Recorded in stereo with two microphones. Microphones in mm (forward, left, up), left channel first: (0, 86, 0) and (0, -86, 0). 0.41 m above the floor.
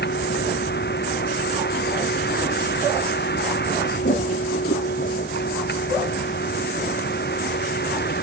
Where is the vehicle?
75° left (ahead or behind); by 8.2 s 70° left (ahead or behind).